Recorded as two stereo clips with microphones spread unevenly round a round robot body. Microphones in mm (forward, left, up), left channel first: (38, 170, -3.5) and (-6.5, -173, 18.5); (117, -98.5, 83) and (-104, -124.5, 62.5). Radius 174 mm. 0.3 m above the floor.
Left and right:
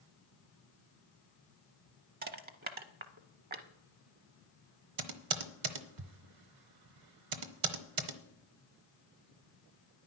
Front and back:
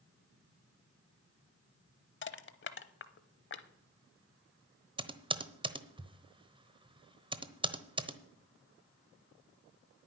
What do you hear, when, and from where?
2.2 s crushing: 30° right, 0.9 m
5.0 s typing on a keyboard: 110° right, 1.1 m